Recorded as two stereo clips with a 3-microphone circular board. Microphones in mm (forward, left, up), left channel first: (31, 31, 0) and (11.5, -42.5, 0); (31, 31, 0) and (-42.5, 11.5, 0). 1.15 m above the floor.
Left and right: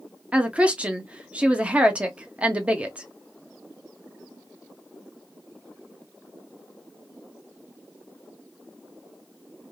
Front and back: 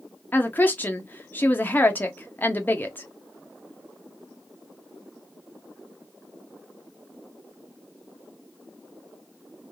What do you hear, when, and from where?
0.3 s a woman speaking: 40° right, 0.6 m